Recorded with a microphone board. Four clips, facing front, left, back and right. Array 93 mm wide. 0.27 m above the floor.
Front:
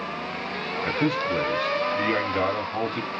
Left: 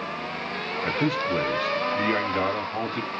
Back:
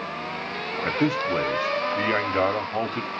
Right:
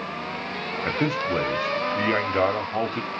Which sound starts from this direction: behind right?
A man speaking, at 0.8 s.